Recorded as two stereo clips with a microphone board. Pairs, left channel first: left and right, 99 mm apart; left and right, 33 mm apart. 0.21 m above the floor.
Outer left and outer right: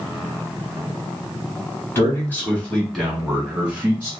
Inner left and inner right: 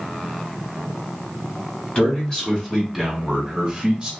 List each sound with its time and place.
1.9 s a man speaking: 25° left (ahead or behind), 1.6 m; by 4.1 s 20° right (ahead or behind), 1.7 m